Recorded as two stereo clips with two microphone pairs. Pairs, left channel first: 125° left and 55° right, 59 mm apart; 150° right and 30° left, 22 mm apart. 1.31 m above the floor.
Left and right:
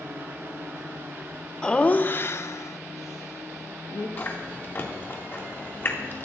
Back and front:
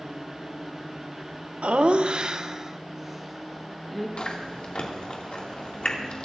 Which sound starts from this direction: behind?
Chewing, at 4.2 s.